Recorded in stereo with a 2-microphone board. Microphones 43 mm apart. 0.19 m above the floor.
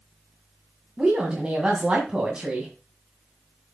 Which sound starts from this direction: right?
A woman speaking, at 1.0 s.